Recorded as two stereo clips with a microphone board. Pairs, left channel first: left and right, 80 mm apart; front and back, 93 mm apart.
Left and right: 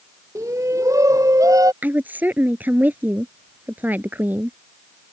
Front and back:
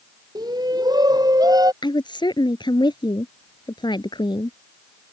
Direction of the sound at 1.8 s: 25° right.